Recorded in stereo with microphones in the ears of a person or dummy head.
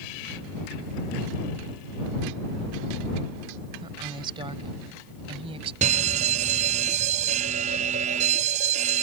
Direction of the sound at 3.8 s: 20° right (ahead or behind).